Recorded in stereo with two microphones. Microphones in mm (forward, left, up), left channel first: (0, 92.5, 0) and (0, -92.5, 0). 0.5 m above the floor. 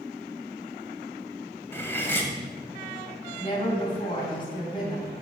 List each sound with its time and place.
1.7 s cutlery clinking: 10° left (ahead or behind), 1.8 m
3.4 s a woman speaking: 25° left (ahead or behind), 3.5 m